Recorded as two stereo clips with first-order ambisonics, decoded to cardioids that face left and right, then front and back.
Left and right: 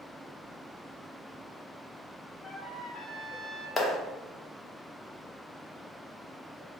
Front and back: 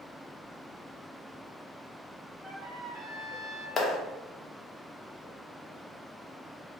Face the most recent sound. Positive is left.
turn(degrees=30)